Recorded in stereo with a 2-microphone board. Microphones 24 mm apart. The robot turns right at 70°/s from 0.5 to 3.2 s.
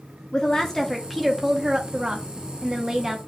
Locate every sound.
0.3 s a woman speaking: 135° left, 0.8 m; by 3.2 s 35° right, 0.8 m